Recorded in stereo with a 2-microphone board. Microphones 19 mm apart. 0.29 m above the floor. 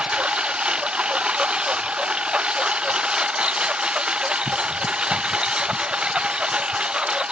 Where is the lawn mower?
65° right (ahead or behind); by 7.3 s 55° right (ahead or behind).